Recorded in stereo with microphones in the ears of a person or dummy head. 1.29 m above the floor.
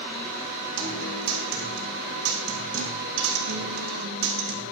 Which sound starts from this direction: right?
A guitar, at 0.8 s.